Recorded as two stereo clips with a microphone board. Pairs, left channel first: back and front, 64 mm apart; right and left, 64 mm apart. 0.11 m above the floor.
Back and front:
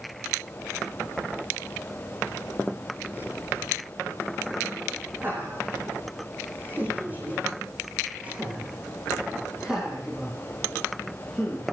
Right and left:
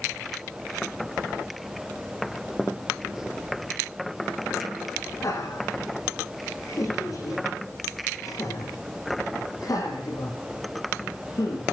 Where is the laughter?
60° right, 9 m; by 11.6 s 95° right, 5 m.